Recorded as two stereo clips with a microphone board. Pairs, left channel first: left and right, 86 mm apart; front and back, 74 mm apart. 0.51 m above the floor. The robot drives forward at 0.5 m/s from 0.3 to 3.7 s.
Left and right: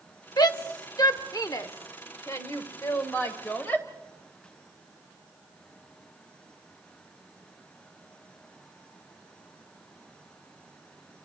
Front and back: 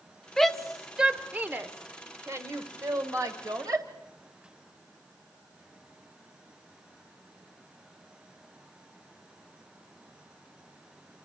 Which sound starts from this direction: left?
A shout, at 0.4 s.